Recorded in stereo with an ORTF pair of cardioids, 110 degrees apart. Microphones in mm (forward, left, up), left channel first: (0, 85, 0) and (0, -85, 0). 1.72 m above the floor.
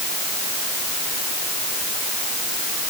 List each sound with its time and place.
Only background noise.